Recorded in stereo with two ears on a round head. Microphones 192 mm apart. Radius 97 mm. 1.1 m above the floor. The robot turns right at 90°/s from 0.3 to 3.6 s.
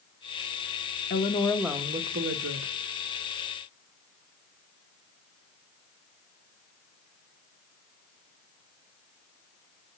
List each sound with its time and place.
1.1 s a woman speaking: 130° left, 1.3 m; by 2.7 s 80° right, 1.3 m